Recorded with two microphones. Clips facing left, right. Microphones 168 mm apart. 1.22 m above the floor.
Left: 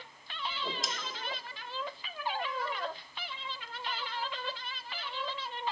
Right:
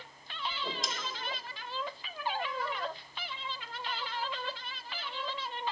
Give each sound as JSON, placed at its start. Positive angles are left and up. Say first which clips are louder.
{"t": 0.5, "sound": "a whoosh", "louder": "left 1 dB", "side_deg": 0, "distance_m": 1.0}